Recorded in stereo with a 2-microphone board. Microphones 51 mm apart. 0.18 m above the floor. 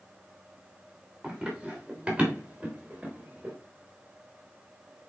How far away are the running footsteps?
About 5 m.